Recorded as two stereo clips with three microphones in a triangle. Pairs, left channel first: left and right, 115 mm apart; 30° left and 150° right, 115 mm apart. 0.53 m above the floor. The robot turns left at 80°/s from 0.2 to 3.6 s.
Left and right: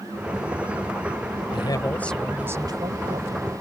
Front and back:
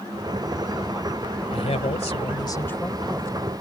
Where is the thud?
I don't hear a thud.